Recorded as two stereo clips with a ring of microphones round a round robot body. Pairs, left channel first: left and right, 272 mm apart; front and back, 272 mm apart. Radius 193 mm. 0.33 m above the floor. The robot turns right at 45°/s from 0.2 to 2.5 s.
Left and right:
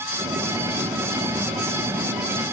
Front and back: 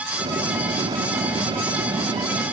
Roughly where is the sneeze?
I don't hear a sneeze.